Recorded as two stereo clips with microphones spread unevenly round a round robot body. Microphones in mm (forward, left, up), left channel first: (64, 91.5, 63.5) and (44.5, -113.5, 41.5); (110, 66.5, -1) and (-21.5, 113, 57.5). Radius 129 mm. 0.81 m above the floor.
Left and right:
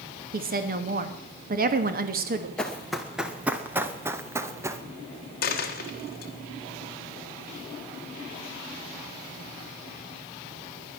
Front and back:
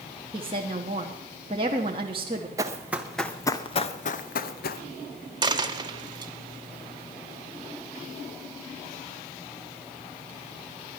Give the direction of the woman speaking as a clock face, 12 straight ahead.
4 o'clock.